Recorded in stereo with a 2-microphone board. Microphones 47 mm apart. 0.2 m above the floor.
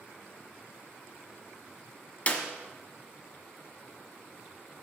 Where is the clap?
30° left (ahead or behind), 1.2 m.